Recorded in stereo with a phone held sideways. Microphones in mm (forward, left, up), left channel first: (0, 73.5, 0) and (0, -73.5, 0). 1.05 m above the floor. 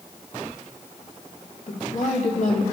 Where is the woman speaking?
55° left (ahead or behind), 2.5 m.